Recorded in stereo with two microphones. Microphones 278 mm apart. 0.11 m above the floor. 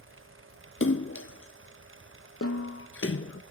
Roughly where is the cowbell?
No cowbell in this recording.